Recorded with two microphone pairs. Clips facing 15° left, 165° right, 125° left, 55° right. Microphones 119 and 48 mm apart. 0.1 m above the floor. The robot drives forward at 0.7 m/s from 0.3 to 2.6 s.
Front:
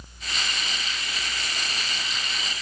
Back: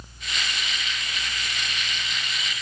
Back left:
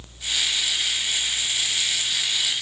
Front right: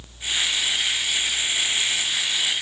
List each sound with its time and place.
Only background noise.